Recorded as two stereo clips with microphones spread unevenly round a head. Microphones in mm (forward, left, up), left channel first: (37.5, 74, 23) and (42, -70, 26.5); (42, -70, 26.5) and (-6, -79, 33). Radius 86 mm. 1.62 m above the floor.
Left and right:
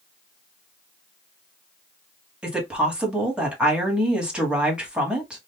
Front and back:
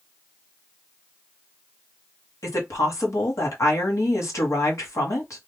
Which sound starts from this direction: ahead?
A woman speaking, at 2.4 s.